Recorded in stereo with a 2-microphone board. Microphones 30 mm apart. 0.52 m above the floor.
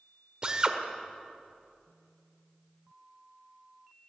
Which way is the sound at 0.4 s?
30° right (ahead or behind).